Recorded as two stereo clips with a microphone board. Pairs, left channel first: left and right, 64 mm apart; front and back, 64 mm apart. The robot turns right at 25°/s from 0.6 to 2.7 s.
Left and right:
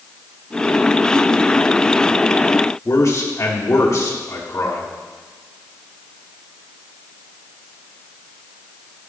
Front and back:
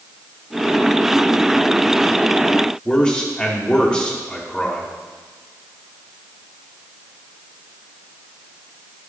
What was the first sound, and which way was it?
A man speaking, 70° left.